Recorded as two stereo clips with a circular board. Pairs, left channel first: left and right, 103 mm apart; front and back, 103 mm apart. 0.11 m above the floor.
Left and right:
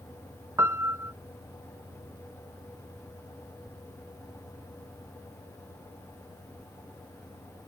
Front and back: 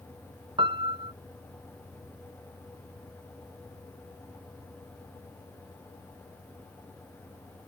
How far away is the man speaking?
I don't hear a man speaking.